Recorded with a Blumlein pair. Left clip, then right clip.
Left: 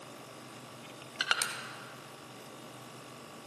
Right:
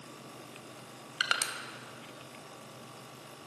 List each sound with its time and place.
1.2 s crushing: straight ahead, 0.9 m